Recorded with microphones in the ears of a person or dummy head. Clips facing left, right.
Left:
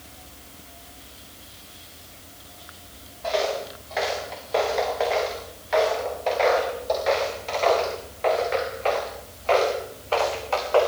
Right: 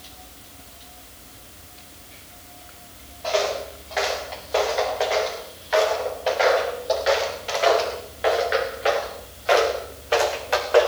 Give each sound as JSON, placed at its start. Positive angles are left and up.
{"t": 3.2, "sound": "footsteps", "side_deg": 0, "distance_m": 8.0}